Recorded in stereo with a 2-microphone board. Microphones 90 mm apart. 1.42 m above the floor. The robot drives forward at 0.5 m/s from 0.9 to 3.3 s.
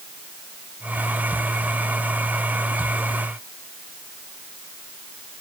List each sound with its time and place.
Only background noise.